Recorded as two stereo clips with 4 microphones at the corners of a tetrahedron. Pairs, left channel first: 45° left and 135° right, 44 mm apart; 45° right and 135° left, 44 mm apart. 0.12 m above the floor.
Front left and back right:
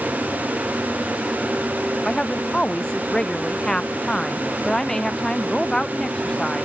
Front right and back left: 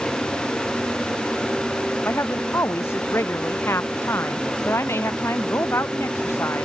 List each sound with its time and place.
2.0 s a woman speaking: 30° right; by 6.7 s 35° right